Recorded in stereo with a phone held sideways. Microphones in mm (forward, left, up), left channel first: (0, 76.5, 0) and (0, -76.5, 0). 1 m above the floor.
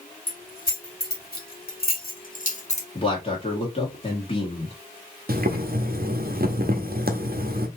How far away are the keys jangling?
About 2.0 m.